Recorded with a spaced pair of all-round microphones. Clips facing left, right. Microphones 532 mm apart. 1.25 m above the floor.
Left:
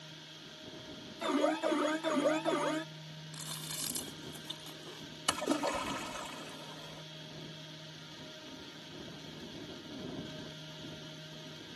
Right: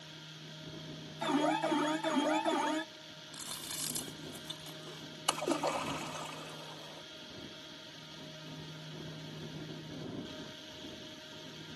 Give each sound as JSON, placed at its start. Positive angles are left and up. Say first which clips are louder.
{"t": 1.2, "sound": "an alarm", "louder": "even", "side_deg": -15}
{"t": 3.3, "sound": "chewing", "louder": "even", "side_deg": 0}
{"t": 5.3, "sound": "a splash", "louder": "left 1 dB", "side_deg": 40}